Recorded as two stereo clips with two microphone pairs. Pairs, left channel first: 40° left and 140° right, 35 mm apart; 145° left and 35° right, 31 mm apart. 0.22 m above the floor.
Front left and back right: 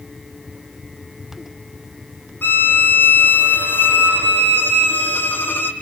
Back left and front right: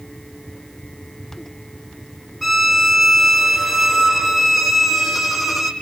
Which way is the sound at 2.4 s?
55° left.